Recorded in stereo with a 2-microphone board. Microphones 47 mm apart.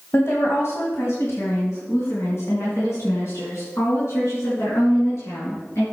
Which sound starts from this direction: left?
A woman speaking, at 0.1 s.